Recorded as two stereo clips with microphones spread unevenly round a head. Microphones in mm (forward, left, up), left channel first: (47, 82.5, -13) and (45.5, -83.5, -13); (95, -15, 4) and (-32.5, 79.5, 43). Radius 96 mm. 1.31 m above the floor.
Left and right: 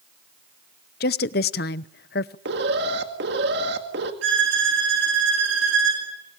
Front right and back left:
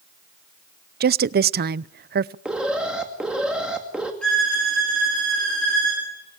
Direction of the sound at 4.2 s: 125° right.